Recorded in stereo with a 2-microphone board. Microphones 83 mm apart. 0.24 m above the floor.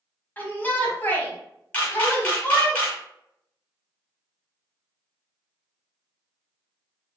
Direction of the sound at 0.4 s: 25° left (ahead or behind).